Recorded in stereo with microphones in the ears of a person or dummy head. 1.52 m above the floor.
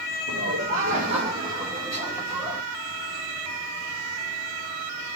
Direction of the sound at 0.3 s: 60° right (ahead or behind).